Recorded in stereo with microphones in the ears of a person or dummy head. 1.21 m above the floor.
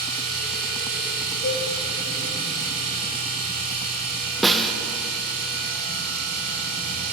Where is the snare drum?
5° left (ahead or behind), 0.8 m.